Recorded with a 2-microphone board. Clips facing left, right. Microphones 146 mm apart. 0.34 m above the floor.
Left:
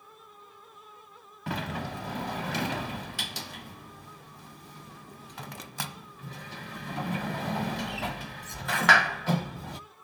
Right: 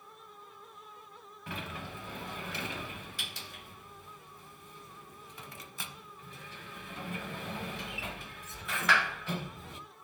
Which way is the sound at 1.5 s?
75° left (ahead or behind).